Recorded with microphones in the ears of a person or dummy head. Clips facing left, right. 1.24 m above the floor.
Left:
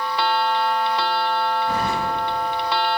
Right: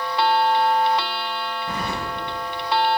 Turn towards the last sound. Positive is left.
turn(degrees=-40)  # may be behind; listen again after turning